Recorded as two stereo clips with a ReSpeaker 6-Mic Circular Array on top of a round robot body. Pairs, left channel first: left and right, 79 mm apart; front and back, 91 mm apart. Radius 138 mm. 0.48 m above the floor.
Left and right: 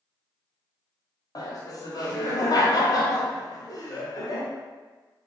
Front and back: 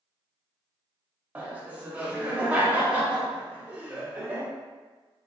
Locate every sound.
1.4 s laughter: 110° left, 1.1 m